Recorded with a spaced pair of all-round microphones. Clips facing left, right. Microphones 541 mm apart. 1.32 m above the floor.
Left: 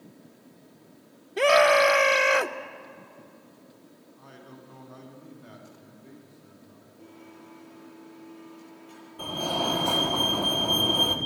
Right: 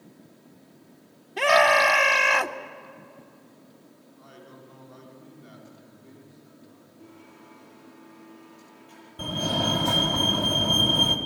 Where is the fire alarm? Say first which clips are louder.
Right 2 dB; 40° right (ahead or behind), 1.7 m.